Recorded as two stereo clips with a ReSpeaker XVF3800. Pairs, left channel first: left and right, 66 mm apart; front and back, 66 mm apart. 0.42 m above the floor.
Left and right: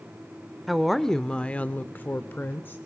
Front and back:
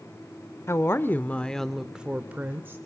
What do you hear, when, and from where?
0.7 s a woman speaking: 5° right, 1.0 m; by 2.8 s 140° left, 1.2 m